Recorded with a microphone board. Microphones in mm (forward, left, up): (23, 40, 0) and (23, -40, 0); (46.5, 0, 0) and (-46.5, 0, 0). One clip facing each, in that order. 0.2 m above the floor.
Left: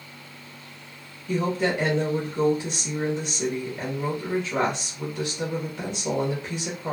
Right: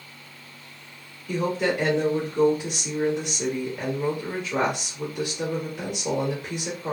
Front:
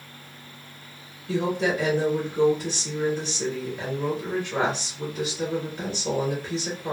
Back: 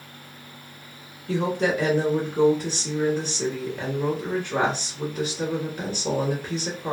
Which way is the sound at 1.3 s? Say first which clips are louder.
Even, back 1 dB; 170° right.